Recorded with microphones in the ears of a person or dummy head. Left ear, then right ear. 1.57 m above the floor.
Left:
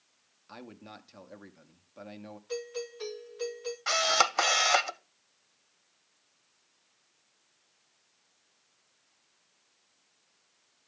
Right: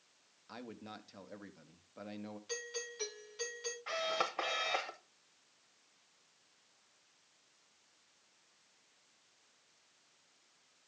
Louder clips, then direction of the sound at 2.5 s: Left 6 dB; 75° right (ahead or behind).